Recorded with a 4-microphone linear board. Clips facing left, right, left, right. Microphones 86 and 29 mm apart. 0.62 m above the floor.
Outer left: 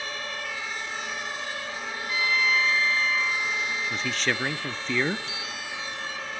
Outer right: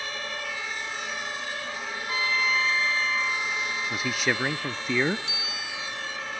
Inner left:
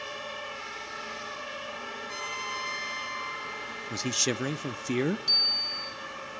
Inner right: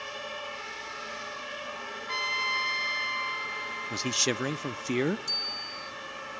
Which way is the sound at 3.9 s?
10° right (ahead or behind).